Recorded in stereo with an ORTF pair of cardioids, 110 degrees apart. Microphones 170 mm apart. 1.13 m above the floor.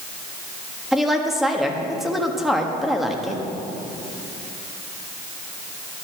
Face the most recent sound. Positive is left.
turn(degrees=0)